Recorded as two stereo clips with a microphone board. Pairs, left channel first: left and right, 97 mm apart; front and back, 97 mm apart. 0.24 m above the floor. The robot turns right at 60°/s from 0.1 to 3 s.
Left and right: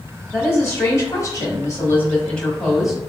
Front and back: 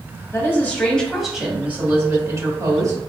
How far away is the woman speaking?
About 1.1 m.